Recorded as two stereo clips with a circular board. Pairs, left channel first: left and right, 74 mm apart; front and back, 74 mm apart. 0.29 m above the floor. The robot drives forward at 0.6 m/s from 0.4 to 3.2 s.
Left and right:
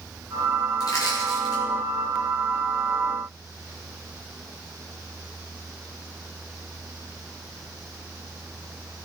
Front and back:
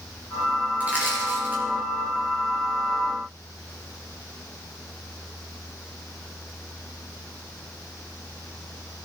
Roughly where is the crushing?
Behind left.